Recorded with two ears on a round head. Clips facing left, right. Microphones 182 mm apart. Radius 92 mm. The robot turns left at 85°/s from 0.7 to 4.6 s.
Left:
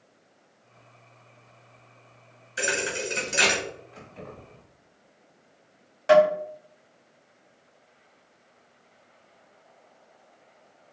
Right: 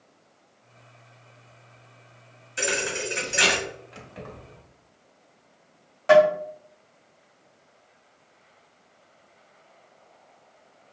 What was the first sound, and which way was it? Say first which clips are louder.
A thud: right 1 dB; 170° left.